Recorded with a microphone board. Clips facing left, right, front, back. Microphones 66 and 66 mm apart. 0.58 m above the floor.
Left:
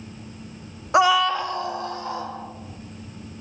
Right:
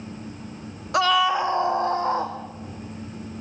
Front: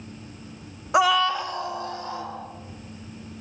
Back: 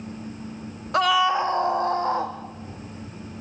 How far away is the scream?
About 0.6 m.